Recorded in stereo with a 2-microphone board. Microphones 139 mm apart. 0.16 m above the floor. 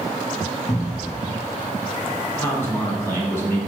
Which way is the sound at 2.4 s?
20° left (ahead or behind).